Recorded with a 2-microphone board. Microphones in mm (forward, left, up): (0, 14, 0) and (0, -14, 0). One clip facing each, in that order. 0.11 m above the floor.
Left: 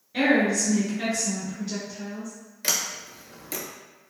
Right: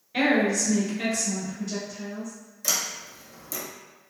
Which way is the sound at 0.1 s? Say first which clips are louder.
Left 1 dB; 15° right (ahead or behind).